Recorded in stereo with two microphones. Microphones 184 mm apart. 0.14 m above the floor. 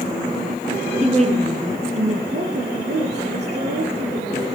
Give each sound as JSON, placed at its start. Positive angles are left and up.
{"t": 1.0, "sound": "a woman speaking", "side_deg": -35, "distance_m": 3.0}
{"t": 2.3, "sound": "a woman speaking", "side_deg": -70, "distance_m": 4.0}